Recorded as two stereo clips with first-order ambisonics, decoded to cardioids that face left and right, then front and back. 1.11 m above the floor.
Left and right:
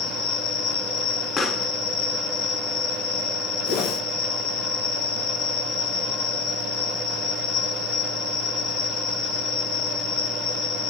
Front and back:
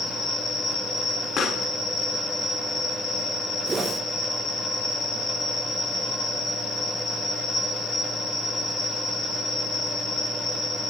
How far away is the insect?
About 3 m.